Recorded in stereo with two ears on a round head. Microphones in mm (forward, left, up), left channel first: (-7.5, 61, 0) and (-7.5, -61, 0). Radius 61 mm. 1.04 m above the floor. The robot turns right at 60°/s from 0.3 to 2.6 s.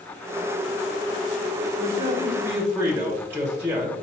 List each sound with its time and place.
1.8 s a man speaking: 65° right, 0.9 m; by 3.9 s 20° right, 0.9 m